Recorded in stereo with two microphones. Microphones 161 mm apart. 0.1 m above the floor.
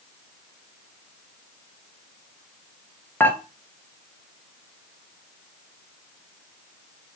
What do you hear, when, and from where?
3.2 s dishes clattering: 10° left (ahead or behind), 1.4 m